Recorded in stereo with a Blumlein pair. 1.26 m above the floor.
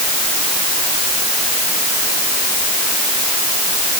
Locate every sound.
Only background noise.